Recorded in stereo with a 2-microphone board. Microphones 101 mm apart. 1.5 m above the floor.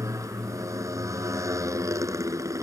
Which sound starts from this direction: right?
A motorcycle, at 0.0 s.